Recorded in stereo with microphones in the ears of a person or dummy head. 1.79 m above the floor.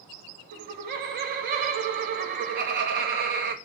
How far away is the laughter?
About 0.8 m.